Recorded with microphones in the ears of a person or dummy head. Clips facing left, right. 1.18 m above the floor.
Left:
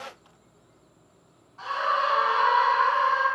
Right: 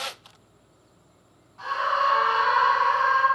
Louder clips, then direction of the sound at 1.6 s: Right 1 dB; 5° left (ahead or behind).